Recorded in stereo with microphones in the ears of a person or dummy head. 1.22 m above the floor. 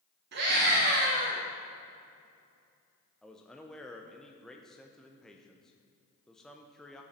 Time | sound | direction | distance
0.3 | a scream | 65° right (ahead or behind) | 2.5 m
3.2 | a man speaking | 5° left (ahead or behind) | 0.7 m